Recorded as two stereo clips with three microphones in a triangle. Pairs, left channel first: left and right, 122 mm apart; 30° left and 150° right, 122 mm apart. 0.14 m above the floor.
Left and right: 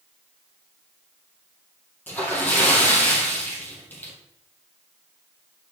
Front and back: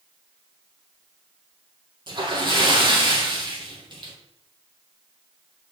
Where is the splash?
165° left, 2 m.